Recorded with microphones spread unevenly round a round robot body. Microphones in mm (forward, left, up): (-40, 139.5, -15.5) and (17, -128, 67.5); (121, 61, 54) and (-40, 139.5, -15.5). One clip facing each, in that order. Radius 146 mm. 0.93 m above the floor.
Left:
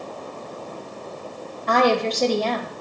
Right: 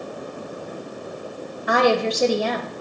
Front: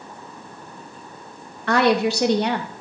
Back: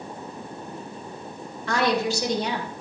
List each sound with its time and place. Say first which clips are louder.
1.7 s a woman speaking: right 1 dB, front 5 dB; 10° left, 1.2 m